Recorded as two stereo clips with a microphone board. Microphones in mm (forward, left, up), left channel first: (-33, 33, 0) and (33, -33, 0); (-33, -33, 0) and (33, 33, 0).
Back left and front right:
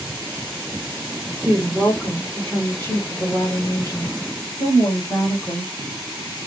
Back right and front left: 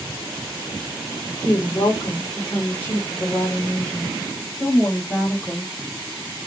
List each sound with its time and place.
1.4 s a woman speaking: 120° right, 1.5 m; by 5.7 s 130° left, 2 m